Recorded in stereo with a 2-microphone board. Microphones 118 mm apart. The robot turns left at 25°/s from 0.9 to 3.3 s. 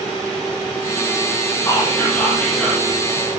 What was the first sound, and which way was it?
Whispering, 25° left (ahead or behind).